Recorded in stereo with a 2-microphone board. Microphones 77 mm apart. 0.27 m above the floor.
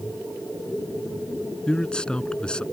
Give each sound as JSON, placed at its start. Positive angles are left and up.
{"t": 1.7, "sound": "a man speaking", "side_deg": 10}